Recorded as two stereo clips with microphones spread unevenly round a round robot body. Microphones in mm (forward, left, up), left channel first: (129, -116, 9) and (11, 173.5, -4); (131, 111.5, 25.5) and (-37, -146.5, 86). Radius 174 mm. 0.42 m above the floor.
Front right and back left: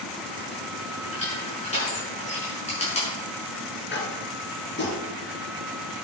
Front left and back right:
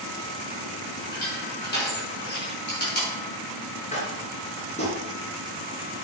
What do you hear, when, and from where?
1.1 s crushing: straight ahead, 5.5 m
3.9 s tapping: 10° right, 3 m